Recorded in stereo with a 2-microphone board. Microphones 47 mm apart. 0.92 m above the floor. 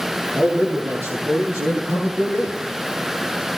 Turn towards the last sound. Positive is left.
turn(degrees=-70)  # may be behind; listen again after turning